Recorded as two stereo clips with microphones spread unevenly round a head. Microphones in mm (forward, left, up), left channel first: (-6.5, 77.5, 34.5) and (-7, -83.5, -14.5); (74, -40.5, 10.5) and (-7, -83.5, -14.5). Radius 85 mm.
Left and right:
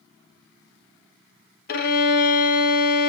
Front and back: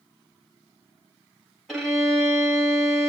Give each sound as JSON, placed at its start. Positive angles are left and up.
{"t": 1.7, "sound": "a violin", "azimuth_deg": 125, "distance_m": 0.9}